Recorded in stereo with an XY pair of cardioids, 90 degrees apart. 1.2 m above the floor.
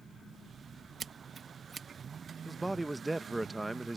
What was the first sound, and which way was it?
Scissors, 50° right.